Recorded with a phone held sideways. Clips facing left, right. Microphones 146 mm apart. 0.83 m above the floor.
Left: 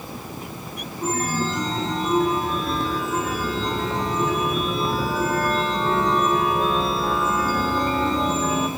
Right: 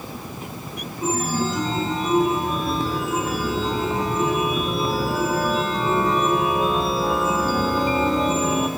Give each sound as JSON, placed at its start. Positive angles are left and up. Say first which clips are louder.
{"t": 1.0, "sound": "a chime", "louder": "right 1 dB", "side_deg": -5, "distance_m": 0.7}